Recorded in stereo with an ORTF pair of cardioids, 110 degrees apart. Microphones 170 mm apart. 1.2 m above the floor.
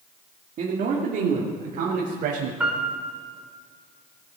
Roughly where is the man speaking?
Ahead right.